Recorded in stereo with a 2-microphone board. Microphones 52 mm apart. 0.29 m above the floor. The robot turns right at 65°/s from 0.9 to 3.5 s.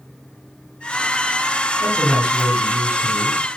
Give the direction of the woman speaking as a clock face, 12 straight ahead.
7 o'clock.